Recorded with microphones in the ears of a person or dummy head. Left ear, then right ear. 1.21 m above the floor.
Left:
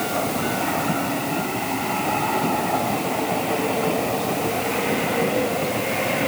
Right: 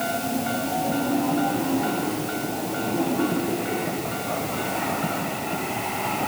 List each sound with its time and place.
Only background noise.